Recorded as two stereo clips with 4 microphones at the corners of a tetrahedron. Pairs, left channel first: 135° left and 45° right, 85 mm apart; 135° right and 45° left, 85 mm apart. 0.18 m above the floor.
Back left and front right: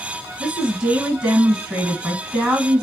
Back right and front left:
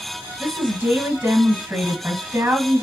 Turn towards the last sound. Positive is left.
turn(degrees=15)